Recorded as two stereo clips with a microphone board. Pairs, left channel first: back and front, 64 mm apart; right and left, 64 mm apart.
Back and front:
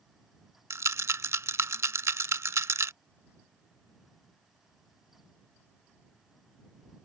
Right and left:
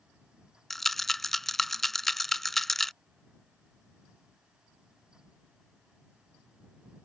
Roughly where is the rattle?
Ahead.